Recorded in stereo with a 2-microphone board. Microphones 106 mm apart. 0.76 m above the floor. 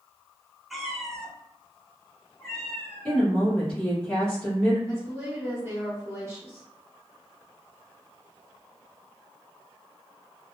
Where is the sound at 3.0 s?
10° left (ahead or behind), 1.8 m.